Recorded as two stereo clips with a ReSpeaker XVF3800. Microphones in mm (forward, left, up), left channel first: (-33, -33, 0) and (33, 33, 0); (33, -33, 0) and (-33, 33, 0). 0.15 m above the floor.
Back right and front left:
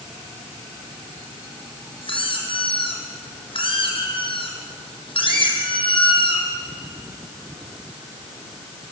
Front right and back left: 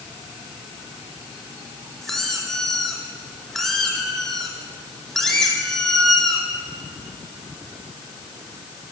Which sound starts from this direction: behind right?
A squeak, at 2.0 s.